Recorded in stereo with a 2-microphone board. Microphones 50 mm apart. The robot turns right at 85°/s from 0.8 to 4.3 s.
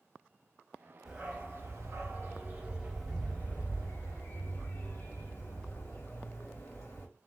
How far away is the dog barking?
About 1.8 m.